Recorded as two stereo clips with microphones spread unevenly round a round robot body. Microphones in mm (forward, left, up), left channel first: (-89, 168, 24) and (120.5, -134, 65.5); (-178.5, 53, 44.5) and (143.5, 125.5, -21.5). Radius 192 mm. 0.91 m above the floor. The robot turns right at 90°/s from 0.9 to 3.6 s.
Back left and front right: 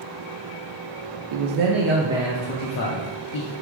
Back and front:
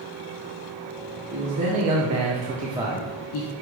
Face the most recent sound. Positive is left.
turn(degrees=160)